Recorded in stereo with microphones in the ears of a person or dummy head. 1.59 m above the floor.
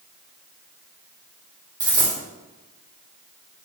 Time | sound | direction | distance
1.8 | a dropped coin | 25° right (ahead or behind) | 1.6 m